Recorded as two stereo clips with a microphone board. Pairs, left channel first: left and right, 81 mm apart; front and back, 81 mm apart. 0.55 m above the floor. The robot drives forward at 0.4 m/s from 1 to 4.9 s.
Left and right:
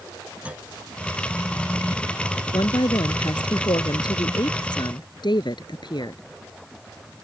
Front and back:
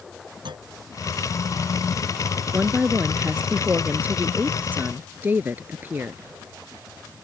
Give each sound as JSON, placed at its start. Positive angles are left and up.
{"t": 0.5, "sound": "a clunk", "azimuth_deg": -165}
{"t": 2.5, "sound": "a woman speaking", "azimuth_deg": 105}